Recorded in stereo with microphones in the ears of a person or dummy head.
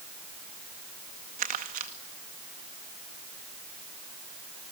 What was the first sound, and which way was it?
Crumpling, 45° right (ahead or behind).